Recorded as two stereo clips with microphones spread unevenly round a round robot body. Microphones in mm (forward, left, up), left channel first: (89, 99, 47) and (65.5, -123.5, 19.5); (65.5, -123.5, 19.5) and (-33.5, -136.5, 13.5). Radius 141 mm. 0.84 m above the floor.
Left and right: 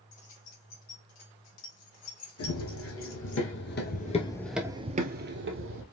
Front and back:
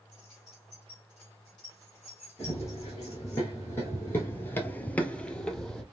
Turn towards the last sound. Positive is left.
turn(degrees=-75)